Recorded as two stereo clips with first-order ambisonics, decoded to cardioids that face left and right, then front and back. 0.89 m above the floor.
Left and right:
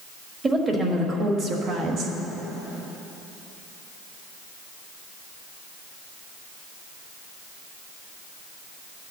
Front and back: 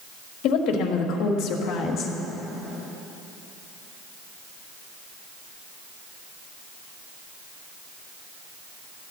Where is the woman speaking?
20° right, 1.9 m; by 2.2 s 50° right, 1.5 m.